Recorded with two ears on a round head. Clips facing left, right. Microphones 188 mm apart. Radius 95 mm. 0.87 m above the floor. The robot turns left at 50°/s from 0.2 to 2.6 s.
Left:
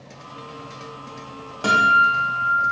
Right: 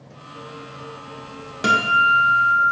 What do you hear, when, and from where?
1.6 s a guitar: 25° right, 0.5 m; by 2.6 s 75° right, 0.5 m